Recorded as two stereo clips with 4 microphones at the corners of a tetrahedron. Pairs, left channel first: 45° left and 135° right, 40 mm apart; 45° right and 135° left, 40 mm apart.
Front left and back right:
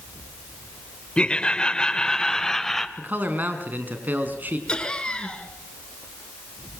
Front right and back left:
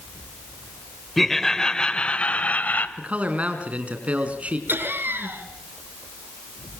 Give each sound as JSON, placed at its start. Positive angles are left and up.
{"t": 1.2, "sound": "laughter", "azimuth_deg": 35, "distance_m": 1.6}
{"t": 3.0, "sound": "a man speaking", "azimuth_deg": -170, "distance_m": 4.5}
{"t": 4.7, "sound": "laughter", "azimuth_deg": 115, "distance_m": 5.0}